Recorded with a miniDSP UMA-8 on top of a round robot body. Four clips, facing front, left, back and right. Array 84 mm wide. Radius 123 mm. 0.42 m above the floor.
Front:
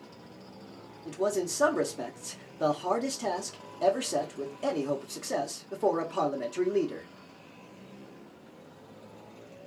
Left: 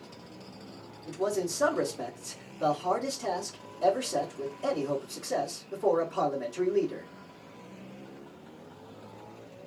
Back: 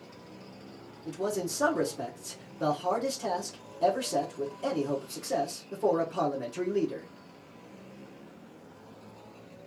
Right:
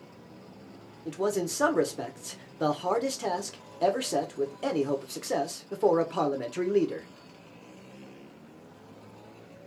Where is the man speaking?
70° right, 1.5 m.